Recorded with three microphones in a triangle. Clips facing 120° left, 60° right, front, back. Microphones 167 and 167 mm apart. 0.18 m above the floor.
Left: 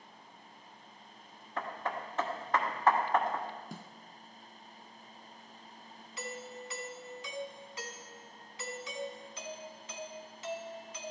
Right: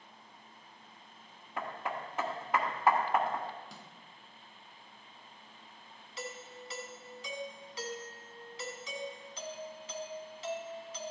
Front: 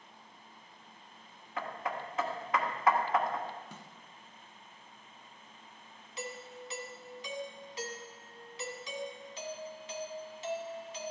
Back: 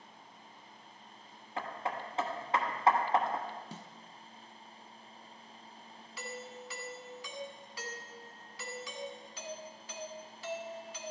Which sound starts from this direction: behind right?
Hammering, at 1.6 s.